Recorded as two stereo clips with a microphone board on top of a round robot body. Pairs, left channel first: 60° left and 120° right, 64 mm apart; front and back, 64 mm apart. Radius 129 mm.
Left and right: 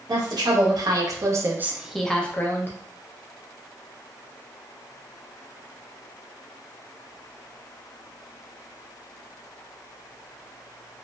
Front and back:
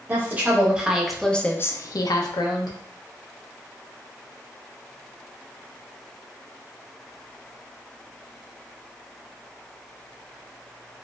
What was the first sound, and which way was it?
A woman speaking, 120° right.